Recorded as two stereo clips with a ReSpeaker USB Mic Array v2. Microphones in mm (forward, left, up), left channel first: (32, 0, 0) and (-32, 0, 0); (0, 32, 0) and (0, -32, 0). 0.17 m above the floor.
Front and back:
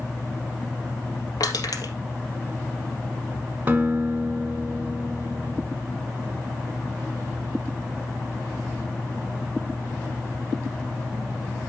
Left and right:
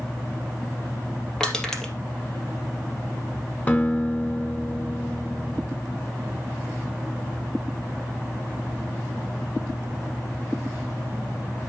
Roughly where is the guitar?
Behind left.